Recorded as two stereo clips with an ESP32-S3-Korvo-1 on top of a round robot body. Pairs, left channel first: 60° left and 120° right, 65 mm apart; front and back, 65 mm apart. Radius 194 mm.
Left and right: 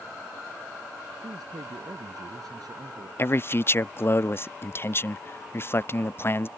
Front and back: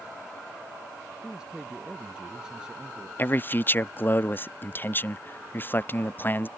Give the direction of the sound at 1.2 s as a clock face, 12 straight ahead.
3 o'clock.